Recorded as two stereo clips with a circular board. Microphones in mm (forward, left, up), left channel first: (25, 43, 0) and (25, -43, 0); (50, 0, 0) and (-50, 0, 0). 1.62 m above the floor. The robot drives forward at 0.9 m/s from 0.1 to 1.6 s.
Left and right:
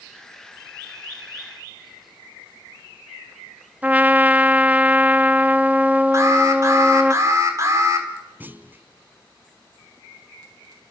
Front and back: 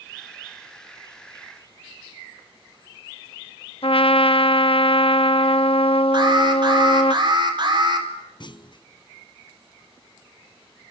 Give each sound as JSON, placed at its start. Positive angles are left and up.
{"t": 3.8, "sound": "a trumpet", "azimuth_deg": -15, "distance_m": 0.6}
{"t": 6.1, "sound": "an alarm", "azimuth_deg": -140, "distance_m": 4.0}
{"t": 8.4, "sound": "a clunk", "azimuth_deg": -25, "distance_m": 0.7}